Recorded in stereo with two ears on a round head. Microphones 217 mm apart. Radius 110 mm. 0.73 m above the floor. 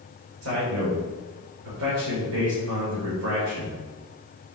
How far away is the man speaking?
About 3 m.